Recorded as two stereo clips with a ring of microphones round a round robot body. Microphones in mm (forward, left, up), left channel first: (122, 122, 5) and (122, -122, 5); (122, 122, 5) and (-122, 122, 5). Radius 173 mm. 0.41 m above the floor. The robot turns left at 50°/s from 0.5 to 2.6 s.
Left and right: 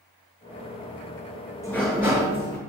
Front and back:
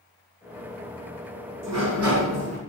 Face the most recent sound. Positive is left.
turn(degrees=135)